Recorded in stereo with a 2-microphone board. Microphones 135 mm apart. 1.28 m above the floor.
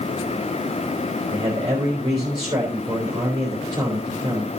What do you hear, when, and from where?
1.3 s a man speaking: 30° right (ahead or behind), 4 m